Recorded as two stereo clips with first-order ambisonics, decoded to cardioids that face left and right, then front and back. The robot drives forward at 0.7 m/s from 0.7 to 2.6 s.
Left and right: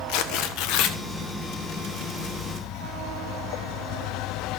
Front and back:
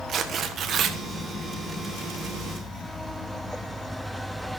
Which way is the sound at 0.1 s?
120° left.